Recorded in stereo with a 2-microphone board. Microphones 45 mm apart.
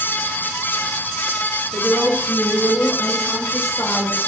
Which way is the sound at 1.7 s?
55° left (ahead or behind).